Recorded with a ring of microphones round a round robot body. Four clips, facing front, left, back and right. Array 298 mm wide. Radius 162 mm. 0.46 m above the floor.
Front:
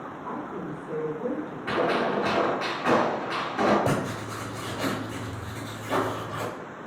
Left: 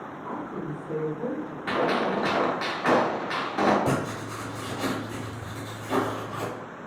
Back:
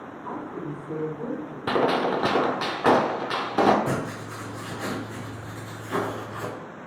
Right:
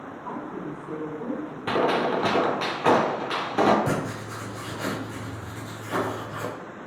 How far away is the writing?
About 1.5 m.